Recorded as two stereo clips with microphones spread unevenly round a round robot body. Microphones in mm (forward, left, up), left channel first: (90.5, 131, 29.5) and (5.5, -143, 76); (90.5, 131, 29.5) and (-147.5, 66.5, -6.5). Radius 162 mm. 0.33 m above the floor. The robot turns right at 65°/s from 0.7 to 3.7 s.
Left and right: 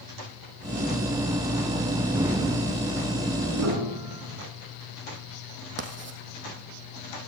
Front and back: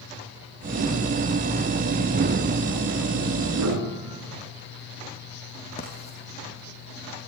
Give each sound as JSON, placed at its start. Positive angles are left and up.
{"t": 3.5, "sound": "a piano", "azimuth_deg": -155, "distance_m": 5.0}
{"t": 5.8, "sound": "writing", "azimuth_deg": -55, "distance_m": 3.0}